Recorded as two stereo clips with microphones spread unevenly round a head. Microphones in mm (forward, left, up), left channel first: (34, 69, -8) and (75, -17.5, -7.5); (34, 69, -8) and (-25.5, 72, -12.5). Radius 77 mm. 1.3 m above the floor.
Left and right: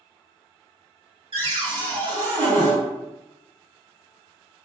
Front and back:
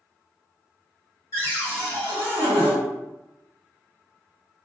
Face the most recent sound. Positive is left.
turn(degrees=-45)